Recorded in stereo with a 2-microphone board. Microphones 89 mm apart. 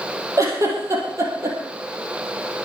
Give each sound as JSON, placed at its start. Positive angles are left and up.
{"t": 0.4, "sound": "a giggle", "side_deg": -35, "distance_m": 4.5}